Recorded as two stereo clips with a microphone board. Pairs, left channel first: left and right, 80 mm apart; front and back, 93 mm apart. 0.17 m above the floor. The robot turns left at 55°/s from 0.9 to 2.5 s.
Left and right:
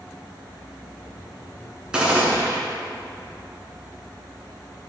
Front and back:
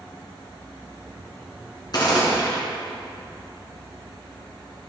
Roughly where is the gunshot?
Ahead.